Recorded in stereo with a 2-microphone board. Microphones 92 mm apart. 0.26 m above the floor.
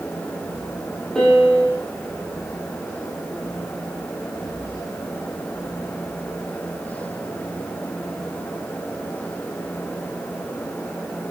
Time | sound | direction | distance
1.1 | a piano | 5° left (ahead or behind) | 8.5 m